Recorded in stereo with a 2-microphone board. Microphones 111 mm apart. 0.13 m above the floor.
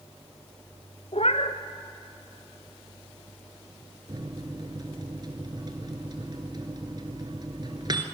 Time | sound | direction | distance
1.1 | a cat meowing | 60° left (ahead or behind) | 1.5 m
4.1 | a microwave | 40° right (ahead or behind) | 1.8 m